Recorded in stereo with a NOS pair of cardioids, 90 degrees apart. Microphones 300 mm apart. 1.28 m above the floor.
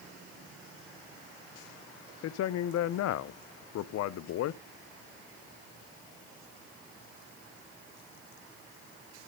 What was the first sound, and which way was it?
A man speaking, 65° left.